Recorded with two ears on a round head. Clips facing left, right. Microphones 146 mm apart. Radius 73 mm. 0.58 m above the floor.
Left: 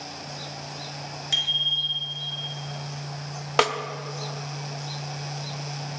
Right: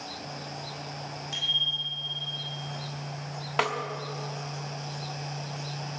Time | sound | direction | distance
1.3 | a bicycle bell | 85° left | 6 m
3.6 | a snare drum | 50° left (ahead or behind) | 1.2 m